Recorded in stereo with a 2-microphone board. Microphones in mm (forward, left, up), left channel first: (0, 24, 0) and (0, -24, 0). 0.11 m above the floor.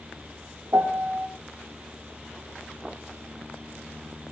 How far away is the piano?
About 2.5 m.